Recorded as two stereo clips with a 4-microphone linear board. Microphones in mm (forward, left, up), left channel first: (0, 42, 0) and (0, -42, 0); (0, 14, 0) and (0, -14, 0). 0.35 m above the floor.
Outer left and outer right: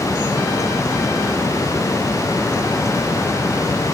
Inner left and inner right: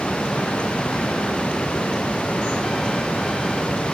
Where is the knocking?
No knocking in this recording.